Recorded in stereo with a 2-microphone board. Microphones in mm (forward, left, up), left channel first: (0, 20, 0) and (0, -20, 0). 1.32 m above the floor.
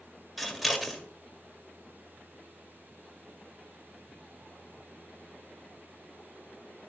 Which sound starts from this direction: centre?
Scissors, at 0.4 s.